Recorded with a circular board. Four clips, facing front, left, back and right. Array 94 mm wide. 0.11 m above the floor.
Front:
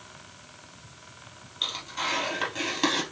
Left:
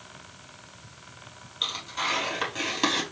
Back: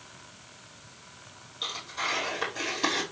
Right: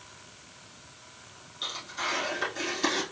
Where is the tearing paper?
55° left, 3 m.